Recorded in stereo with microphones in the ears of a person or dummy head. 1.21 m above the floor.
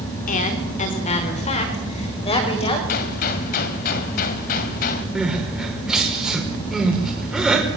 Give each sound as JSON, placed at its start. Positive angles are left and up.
{"t": 0.3, "sound": "a woman speaking", "side_deg": 45, "distance_m": 4.0}
{"t": 2.9, "sound": "a gunshot", "side_deg": 55, "distance_m": 2.0}
{"t": 5.2, "sound": "crying", "side_deg": 0, "distance_m": 4.5}